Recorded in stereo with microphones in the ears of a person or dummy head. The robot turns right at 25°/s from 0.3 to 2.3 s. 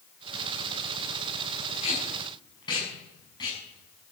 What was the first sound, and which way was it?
Tape being pulled, 35° left (ahead or behind).